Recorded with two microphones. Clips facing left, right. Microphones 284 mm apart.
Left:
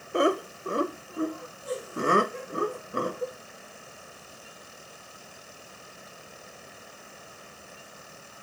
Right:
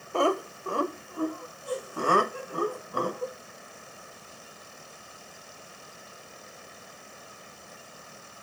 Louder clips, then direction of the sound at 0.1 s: Left 2 dB; 20° left (ahead or behind).